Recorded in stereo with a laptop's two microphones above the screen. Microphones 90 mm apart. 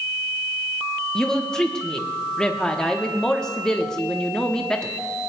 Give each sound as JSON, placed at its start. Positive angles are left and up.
{"t": 1.1, "sound": "a woman speaking", "side_deg": 10, "distance_m": 0.9}